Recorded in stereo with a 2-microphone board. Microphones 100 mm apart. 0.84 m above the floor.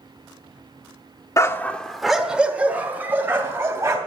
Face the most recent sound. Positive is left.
turn(degrees=-25)  # may be behind; listen again after turning